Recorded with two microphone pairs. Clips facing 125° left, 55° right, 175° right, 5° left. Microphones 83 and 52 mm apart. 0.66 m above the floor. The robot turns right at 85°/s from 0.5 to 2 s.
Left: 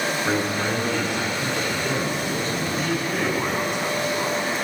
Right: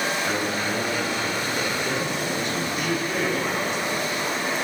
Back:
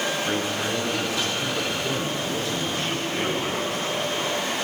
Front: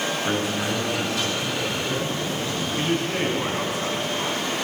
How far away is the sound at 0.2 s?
About 9 m.